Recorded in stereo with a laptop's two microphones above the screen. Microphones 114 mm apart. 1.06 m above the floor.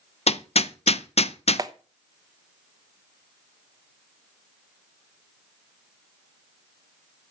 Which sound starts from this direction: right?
A clap, at 1.6 s.